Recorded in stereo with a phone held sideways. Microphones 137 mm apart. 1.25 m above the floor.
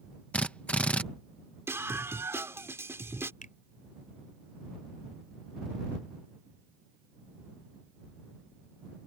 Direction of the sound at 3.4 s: 75° left (ahead or behind).